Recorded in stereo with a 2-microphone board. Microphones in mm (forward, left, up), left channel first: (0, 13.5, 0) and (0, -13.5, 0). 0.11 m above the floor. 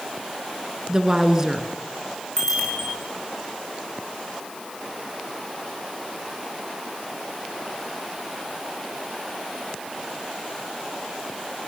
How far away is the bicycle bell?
About 7 m.